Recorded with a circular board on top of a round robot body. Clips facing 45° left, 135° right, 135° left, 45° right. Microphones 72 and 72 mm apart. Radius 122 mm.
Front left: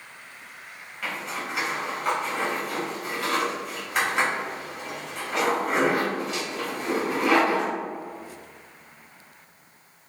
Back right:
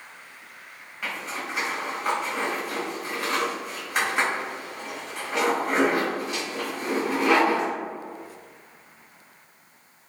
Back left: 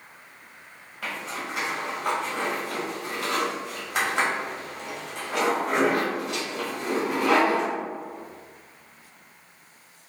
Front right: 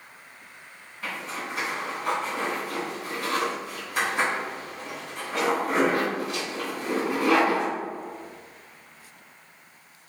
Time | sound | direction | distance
1.0 | a zipper | 140° left | 1.2 m